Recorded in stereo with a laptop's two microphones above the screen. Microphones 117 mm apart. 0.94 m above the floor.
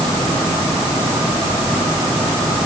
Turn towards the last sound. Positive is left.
No sound to turn to.